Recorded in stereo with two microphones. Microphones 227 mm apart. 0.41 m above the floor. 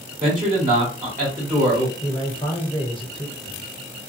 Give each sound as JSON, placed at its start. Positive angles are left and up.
{"t": 0.2, "sound": "a man speaking", "side_deg": -35, "distance_m": 1.6}
{"t": 2.0, "sound": "a man speaking", "side_deg": 20, "distance_m": 1.0}